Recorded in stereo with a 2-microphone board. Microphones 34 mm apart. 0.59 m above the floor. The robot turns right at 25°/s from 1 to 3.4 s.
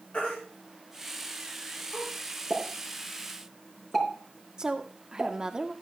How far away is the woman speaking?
About 1.0 m.